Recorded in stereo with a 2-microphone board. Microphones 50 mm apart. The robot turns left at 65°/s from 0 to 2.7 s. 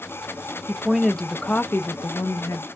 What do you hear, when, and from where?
0.7 s a woman speaking: 160° right, 0.5 m; by 2.7 s 70° left, 0.5 m